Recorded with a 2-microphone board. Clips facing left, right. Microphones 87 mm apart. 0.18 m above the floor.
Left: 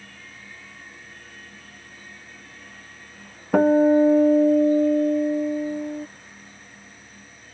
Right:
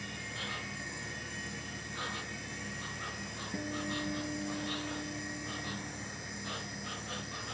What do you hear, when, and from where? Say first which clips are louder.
0.0 s an insect: right 3 dB; 80° right
3.5 s a guitar: left 24 dB; 75° left (ahead or behind)